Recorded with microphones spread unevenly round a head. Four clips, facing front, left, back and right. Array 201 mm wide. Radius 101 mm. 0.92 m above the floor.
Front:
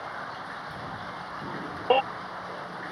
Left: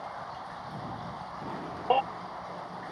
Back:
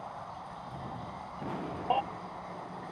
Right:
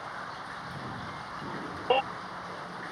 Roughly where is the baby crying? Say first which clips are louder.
Left 1 dB, front 7 dB; ahead.